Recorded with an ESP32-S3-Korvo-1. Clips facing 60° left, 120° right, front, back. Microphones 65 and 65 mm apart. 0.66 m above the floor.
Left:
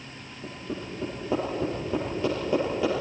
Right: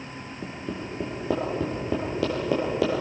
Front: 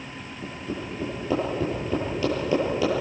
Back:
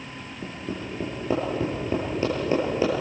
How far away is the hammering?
About 9.5 m.